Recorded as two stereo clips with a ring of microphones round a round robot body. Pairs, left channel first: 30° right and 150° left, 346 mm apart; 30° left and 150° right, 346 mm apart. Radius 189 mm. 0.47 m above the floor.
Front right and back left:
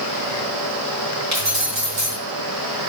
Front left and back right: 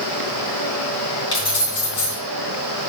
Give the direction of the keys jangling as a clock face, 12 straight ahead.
8 o'clock.